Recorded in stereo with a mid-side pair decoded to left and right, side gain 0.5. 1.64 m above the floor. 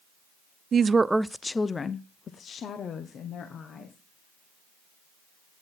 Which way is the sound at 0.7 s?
45° right.